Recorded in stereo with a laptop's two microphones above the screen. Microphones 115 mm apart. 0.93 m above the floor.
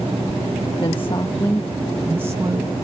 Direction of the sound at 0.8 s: 50° left (ahead or behind).